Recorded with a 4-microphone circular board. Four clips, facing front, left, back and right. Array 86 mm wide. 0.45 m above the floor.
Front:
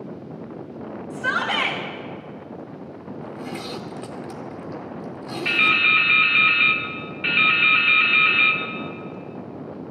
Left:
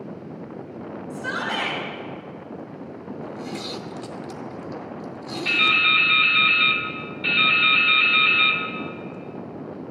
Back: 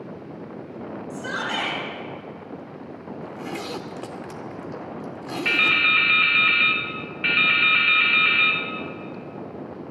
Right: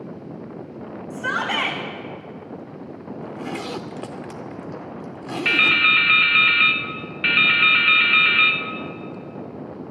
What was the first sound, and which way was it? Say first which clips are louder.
A shout: right 4 dB, front 5 dB; 50° right.